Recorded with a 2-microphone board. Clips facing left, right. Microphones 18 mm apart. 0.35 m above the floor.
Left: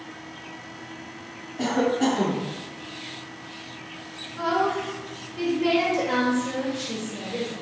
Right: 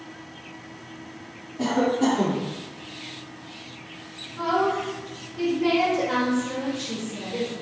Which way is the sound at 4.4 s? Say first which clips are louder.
Right 1 dB; 25° left (ahead or behind).